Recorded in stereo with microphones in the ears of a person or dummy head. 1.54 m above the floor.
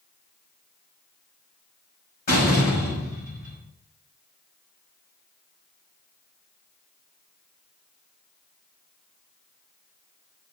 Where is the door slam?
50° left (ahead or behind), 5.5 m.